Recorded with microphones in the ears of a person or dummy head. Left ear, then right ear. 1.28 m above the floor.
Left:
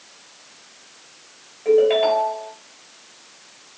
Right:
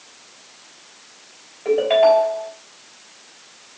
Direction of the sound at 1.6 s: 10° right (ahead or behind).